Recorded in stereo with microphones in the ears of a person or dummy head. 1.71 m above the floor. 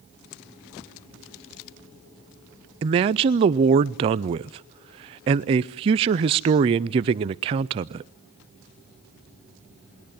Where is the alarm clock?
I don't hear an alarm clock.